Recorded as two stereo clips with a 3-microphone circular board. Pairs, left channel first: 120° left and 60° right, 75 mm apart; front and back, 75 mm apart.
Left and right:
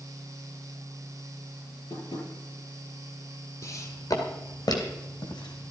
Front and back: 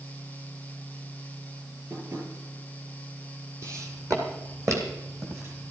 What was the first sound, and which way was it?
Tapping, 130° left.